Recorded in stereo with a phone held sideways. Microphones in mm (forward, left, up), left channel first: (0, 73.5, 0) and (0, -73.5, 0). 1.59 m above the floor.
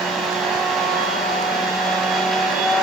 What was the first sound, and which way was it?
A machine running, centre (ahead or behind).